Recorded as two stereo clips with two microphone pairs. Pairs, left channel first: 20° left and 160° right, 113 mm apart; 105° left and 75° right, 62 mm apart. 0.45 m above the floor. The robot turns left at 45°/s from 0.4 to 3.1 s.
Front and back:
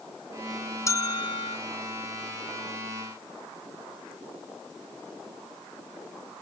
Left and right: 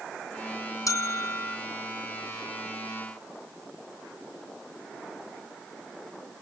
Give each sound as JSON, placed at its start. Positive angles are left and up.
{"t": 0.9, "sound": "a bell", "azimuth_deg": 85}